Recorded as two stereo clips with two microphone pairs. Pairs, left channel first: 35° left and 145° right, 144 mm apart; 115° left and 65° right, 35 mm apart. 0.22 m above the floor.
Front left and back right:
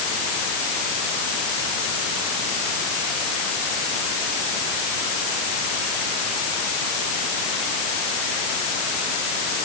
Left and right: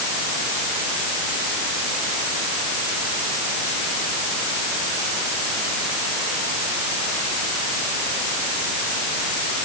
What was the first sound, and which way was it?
Only background noise.